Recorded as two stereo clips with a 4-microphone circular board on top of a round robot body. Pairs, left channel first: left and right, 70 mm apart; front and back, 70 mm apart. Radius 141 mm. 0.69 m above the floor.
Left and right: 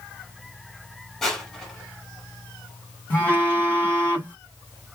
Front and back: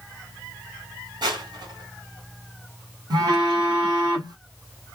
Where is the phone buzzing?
155° left, 2.0 m.